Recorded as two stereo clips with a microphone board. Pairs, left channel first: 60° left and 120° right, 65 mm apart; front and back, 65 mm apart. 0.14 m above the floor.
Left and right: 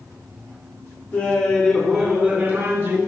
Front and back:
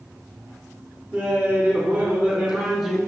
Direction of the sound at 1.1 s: 120° left.